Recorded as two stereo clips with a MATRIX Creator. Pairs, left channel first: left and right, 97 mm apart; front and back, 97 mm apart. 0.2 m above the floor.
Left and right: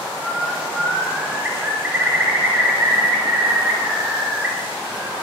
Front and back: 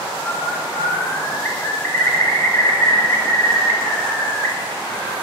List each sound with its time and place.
0.1 s a bird: 40° right, 0.9 m